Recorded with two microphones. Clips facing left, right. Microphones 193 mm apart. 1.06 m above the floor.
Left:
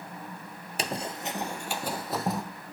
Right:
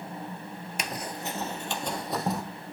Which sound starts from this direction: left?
Running footsteps, at 0.8 s.